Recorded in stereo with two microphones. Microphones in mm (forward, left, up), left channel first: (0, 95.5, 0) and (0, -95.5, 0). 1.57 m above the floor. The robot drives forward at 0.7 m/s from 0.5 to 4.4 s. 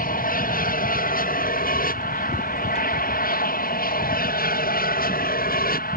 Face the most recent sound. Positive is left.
turn(degrees=50)  # may be behind; listen again after turning